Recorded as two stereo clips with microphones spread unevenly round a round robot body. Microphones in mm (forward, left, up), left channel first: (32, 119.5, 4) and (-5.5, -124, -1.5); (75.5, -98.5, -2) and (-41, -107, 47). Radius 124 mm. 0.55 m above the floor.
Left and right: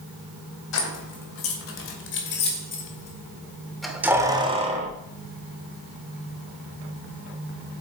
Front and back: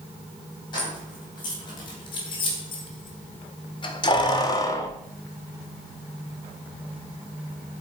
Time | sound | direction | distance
0.7 | keys jangling | 55° left | 2.5 m